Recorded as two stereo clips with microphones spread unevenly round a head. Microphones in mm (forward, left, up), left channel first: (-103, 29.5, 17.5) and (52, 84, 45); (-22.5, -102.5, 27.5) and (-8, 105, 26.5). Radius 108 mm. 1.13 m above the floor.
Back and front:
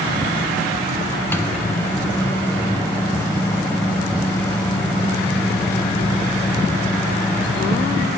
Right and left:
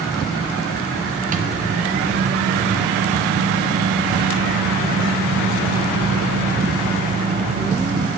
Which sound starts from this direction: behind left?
A microwave, at 1.3 s.